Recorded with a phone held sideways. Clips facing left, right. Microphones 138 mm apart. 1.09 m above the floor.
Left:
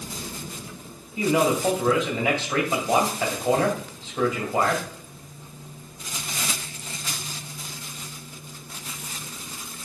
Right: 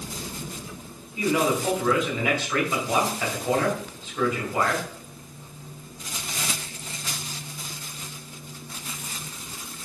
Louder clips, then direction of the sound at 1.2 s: Left 2 dB; 25° left (ahead or behind).